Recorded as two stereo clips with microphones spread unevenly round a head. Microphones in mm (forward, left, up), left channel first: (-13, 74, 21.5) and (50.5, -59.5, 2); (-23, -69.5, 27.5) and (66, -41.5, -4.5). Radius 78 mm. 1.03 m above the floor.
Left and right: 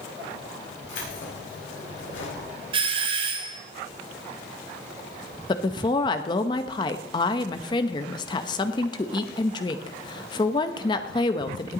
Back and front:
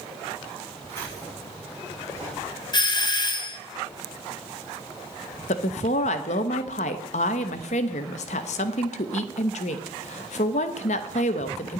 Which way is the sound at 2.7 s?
115° right.